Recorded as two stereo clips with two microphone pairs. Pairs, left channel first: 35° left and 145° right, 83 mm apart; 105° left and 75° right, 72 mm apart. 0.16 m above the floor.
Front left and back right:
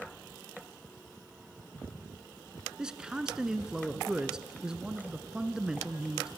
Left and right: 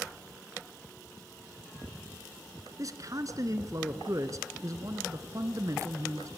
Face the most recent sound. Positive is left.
turn(degrees=-70)